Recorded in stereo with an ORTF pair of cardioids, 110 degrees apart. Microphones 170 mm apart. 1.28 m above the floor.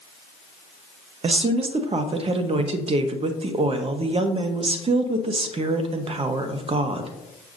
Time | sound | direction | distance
1.2 | a woman speaking | 35° right | 1.1 m